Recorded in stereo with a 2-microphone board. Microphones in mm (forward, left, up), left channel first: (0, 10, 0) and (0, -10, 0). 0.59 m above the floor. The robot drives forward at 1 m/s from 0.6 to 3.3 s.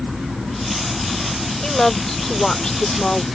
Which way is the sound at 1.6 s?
30° left (ahead or behind).